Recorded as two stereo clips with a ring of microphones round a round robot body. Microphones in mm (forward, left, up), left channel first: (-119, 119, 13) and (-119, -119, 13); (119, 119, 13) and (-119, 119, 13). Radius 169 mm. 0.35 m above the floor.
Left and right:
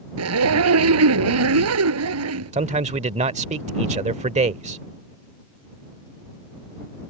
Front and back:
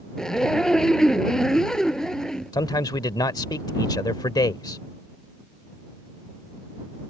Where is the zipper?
90° right.